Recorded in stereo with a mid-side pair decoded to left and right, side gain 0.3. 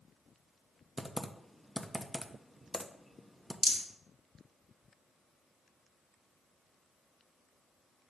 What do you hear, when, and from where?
1.0 s typing on a keyboard: 5° right, 0.7 m
3.6 s a rattle: straight ahead, 1.4 m